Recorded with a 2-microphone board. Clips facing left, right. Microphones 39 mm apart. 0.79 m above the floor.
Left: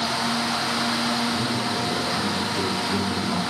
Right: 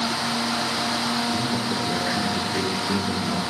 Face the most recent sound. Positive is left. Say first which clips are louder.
# even
turn(degrees=-85)